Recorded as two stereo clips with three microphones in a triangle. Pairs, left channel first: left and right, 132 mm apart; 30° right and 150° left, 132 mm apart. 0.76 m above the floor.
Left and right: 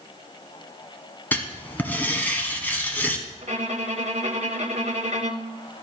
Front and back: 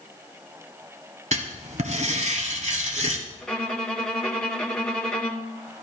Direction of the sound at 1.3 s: 165° left.